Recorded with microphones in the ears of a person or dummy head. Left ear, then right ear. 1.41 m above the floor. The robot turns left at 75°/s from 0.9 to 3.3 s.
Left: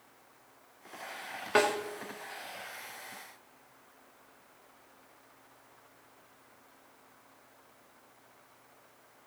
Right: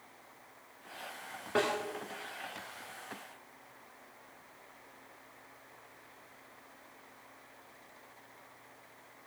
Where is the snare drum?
50° left (ahead or behind), 1.7 m; by 1.8 s 40° left (ahead or behind), 1.7 m.